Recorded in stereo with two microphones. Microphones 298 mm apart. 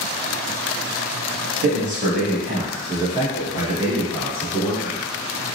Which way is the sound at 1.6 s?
40° right (ahead or behind).